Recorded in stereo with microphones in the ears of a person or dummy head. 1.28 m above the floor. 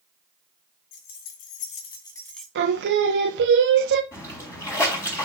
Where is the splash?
10° left (ahead or behind), 3 m.